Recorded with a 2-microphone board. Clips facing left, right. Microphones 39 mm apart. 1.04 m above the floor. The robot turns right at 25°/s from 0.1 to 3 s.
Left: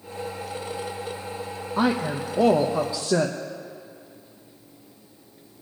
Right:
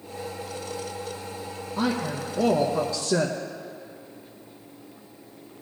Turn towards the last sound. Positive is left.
turn(degrees=160)